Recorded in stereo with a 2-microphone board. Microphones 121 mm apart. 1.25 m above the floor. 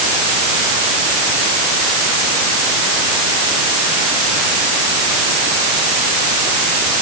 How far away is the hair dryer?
I don't hear a hair dryer.